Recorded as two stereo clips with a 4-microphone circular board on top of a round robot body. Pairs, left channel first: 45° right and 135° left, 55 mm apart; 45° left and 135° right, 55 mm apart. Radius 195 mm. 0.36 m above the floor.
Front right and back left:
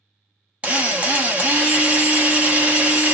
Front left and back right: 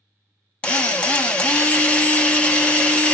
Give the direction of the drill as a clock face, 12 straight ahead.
9 o'clock.